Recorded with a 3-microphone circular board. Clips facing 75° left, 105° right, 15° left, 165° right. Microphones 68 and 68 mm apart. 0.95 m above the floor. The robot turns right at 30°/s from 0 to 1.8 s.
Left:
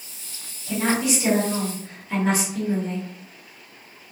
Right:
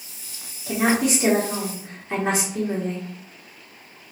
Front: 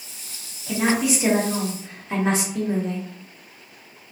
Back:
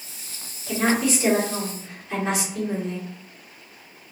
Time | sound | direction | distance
0.7 | a woman speaking | 75° right | 2 m